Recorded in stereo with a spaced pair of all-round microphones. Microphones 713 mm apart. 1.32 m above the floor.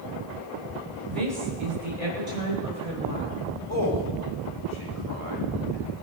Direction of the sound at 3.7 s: 50° left (ahead or behind).